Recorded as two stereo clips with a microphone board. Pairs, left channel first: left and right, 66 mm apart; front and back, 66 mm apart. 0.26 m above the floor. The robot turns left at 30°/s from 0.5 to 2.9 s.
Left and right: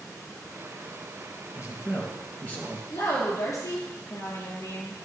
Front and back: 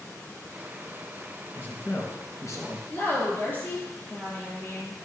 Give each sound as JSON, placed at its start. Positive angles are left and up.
{"t": 1.6, "sound": "a man speaking", "azimuth_deg": 60, "distance_m": 3.0}
{"t": 2.9, "sound": "a woman speaking", "azimuth_deg": 60, "distance_m": 5.0}